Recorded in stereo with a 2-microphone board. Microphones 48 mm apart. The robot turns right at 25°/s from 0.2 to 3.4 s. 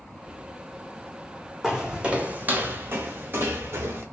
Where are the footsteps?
15° right (ahead or behind), 0.6 m; by 4.0 s 60° right (ahead or behind), 1.1 m.